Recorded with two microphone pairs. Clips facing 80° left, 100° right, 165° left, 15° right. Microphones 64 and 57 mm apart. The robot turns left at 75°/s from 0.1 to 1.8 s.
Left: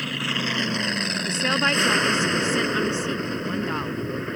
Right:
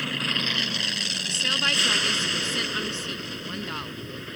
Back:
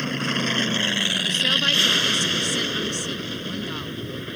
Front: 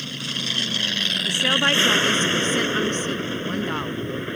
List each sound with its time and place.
0.0 s an aircraft: 170° left; by 4.4 s 40° left
1.2 s a woman speaking: 60° left; by 4.0 s 20° left